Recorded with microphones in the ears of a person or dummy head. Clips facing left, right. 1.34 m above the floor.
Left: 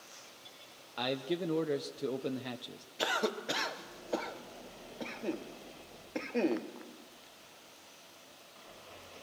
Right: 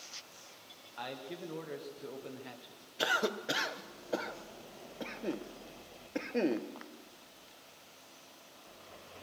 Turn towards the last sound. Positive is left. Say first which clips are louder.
# even
turn(degrees=-5)  # may be behind; listen again after turning